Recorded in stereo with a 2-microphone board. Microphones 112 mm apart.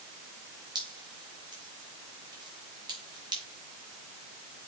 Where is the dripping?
40° right (ahead or behind), 3.5 m.